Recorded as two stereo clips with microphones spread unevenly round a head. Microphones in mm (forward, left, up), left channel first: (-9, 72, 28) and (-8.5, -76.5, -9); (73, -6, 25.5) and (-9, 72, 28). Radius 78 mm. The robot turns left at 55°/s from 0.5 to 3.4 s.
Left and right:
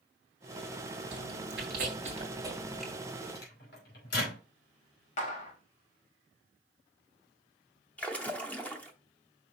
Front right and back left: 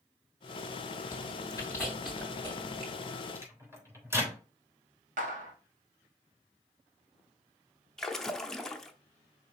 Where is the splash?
40° left, 0.7 m.